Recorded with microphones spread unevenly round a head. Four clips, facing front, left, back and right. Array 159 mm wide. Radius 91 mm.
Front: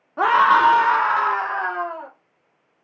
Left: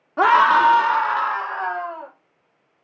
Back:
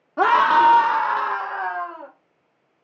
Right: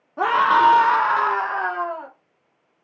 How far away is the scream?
About 0.7 m.